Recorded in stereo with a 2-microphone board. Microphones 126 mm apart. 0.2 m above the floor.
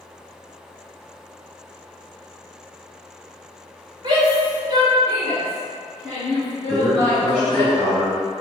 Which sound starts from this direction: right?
A shout, at 4.0 s.